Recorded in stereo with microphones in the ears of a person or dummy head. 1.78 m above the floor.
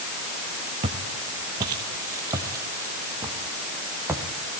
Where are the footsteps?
20° right (ahead or behind), 1.8 m; by 4.2 s 10° right (ahead or behind), 3.5 m.